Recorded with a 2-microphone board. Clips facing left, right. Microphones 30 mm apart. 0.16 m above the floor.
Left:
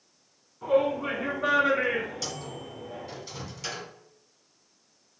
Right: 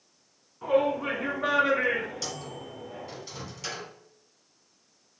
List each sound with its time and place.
0.6 s a shout: 20° right (ahead or behind), 1.9 m; by 3.2 s 30° left (ahead or behind), 1.5 m
2.2 s a microwave: centre (ahead or behind), 1.4 m